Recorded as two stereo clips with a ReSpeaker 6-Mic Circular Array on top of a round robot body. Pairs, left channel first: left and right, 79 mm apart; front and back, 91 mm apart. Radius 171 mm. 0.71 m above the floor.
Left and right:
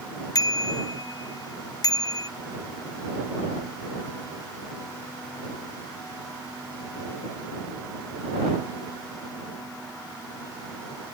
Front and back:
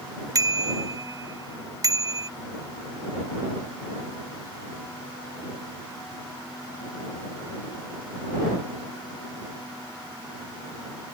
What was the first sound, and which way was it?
A bicycle bell, 130° left.